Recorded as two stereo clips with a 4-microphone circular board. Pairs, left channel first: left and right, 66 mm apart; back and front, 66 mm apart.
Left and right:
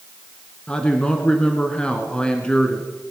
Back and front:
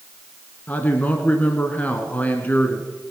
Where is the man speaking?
145° left, 1.2 m.